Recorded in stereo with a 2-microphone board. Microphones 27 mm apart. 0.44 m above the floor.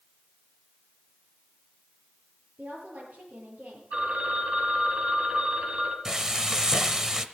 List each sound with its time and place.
2.6 s a woman speaking: 55° right (ahead or behind), 8.5 m
3.9 s a phone ringing: 45° right (ahead or behind), 2.5 m
6.0 s frying: 20° right (ahead or behind), 0.9 m